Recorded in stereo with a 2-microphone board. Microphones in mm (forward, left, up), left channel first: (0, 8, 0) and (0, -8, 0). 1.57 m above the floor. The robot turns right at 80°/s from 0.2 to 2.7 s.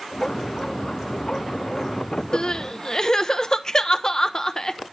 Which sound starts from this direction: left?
Crying, at 2.3 s.